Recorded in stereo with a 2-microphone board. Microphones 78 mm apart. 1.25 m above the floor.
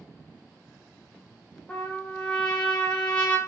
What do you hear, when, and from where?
1.7 s a trumpet: 10° left (ahead or behind), 0.5 m